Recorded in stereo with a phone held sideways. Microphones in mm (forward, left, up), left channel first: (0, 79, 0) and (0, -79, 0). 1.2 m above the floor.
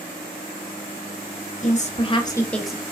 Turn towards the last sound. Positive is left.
turn(degrees=-10)  # may be behind; listen again after turning